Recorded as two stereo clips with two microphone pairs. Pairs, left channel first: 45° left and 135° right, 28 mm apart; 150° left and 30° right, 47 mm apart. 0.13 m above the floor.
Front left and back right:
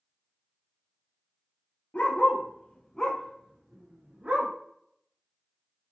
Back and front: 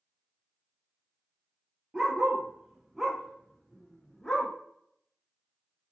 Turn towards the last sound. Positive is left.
turn(degrees=-135)